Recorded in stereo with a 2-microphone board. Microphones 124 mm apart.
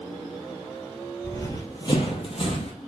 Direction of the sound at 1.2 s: 20° left (ahead or behind).